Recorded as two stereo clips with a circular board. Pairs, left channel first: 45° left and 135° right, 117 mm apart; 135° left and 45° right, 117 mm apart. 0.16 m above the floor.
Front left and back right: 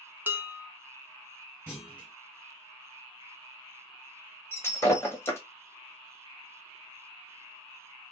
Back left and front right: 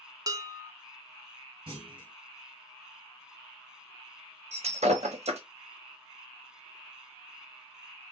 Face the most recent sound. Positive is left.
turn(degrees=-25)